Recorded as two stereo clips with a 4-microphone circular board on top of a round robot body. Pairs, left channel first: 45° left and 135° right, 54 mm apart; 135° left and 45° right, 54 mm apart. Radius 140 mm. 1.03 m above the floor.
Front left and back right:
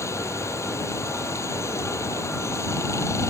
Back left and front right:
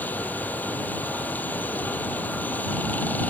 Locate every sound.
0.0 s running water: 75° left